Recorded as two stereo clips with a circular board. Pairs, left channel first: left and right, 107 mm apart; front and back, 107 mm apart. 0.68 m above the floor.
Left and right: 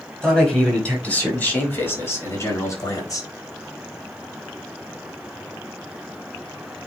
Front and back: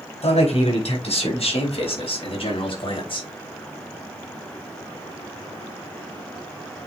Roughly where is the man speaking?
Ahead.